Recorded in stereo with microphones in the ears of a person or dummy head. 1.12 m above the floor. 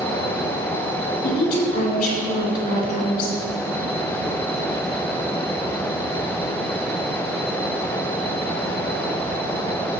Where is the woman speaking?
55° left (ahead or behind), 2.5 m.